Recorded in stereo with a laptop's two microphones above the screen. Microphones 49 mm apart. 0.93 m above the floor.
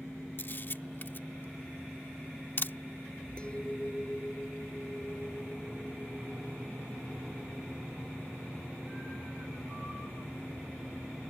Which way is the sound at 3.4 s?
20° left (ahead or behind).